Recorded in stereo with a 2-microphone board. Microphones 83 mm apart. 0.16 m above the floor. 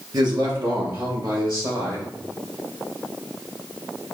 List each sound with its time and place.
0.1 s a man speaking: 55° right (ahead or behind), 1.7 m; by 2.1 s 60° right (ahead or behind), 3 m